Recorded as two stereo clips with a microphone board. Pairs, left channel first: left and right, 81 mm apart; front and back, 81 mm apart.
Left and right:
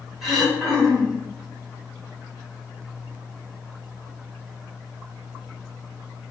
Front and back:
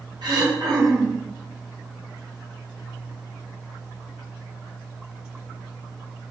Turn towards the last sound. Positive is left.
turn(degrees=-175)